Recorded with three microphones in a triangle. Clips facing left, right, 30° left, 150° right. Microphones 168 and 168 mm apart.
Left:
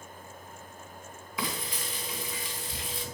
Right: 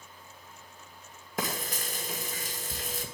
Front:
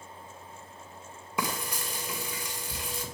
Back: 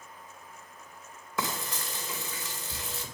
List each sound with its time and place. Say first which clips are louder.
1.4 s frying: right 2 dB, front 1 dB; 45° right, 2 m